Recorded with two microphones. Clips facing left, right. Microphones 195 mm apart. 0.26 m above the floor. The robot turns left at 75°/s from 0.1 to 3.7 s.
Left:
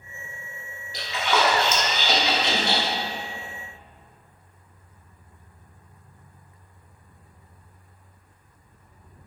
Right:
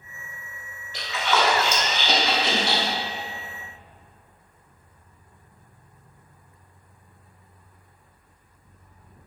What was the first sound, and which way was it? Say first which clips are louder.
A splash: even; 40° left (ahead or behind).